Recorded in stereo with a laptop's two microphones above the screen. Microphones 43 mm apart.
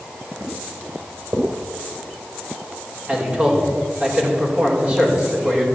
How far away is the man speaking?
About 4 m.